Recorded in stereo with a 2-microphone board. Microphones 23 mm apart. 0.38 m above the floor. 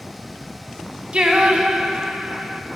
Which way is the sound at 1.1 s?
45° right (ahead or behind).